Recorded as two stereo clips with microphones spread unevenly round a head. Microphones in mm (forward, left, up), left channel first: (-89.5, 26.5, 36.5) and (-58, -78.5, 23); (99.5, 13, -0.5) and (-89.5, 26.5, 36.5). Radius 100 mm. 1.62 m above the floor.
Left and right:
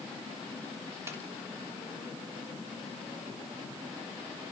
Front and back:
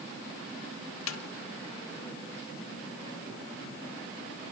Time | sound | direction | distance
1.1 | a snare drum | 5° left | 1.6 m